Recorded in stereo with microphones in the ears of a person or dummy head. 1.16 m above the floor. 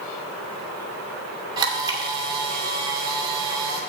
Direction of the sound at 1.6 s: 20° right (ahead or behind).